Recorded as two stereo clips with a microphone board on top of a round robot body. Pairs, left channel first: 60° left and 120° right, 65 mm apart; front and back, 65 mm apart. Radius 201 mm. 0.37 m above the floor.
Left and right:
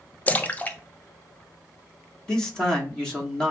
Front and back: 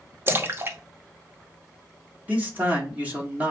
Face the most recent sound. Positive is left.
turn(degrees=130)